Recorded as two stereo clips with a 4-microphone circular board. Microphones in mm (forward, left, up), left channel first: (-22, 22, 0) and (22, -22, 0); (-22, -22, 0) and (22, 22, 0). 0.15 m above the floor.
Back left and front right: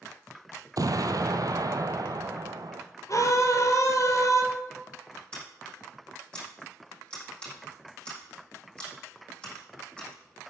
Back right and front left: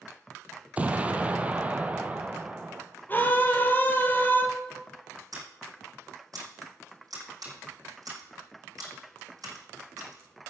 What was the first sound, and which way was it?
An explosion, 25° right.